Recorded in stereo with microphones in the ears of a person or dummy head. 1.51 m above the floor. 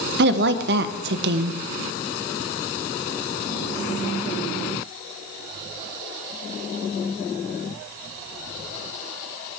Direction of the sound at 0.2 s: 55° right (ahead or behind).